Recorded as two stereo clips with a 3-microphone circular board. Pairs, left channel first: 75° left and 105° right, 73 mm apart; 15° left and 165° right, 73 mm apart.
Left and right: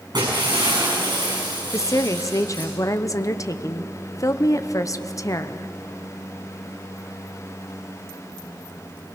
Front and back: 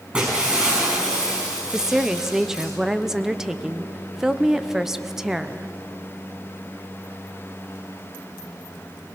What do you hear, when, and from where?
0.1 s breaking glass: 90° right, 6 m
1.7 s a woman speaking: 110° left, 0.8 m